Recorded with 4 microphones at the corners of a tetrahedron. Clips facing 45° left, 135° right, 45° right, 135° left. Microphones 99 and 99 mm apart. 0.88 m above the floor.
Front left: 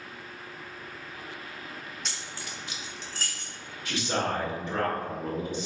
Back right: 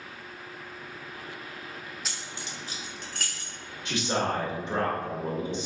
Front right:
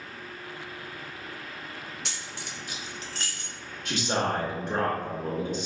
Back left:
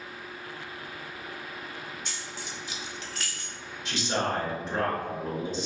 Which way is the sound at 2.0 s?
45° right.